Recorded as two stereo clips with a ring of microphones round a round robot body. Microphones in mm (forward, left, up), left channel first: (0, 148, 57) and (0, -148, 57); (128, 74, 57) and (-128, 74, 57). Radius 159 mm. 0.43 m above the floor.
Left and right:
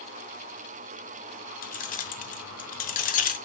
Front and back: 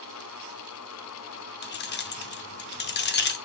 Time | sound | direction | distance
1.6 | keys jangling | 35° left | 0.6 m